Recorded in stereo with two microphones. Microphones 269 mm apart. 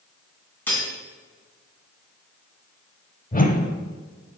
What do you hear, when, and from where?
0.7 s cutlery clinking: 5° left (ahead or behind), 1.9 m
3.3 s a whoosh: 30° left (ahead or behind), 0.6 m